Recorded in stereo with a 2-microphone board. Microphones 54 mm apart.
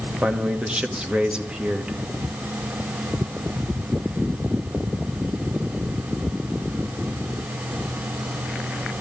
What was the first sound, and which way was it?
A man speaking, 20° right (ahead or behind).